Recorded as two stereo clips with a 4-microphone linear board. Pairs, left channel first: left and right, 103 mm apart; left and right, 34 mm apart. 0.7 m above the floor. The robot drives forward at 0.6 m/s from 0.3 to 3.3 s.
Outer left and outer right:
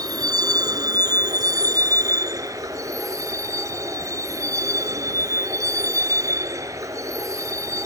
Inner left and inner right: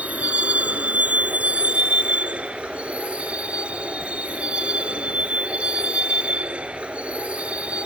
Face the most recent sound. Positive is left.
turn(degrees=-30)  # may be behind; listen again after turning